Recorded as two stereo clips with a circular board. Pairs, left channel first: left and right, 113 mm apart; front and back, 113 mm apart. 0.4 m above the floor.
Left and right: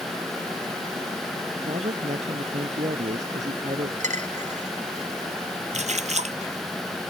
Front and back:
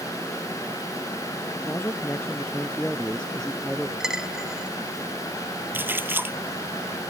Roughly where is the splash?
Right.